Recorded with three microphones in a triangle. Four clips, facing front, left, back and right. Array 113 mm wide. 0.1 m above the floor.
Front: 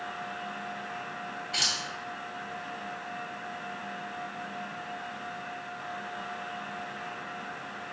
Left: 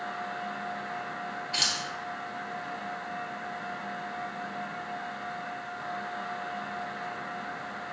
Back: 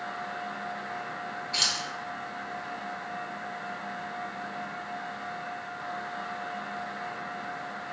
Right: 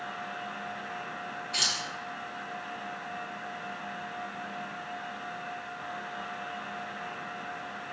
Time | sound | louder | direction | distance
1.5 | keys jangling | even, back 1 dB | 50° left | 1.6 m